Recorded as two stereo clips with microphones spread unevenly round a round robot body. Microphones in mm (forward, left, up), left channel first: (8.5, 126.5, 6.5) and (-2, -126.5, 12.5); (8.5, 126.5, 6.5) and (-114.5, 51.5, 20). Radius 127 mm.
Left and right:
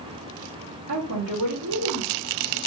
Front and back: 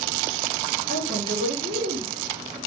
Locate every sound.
0.9 s a woman speaking: 125° right, 1.7 m; by 2.6 s 90° right, 1.6 m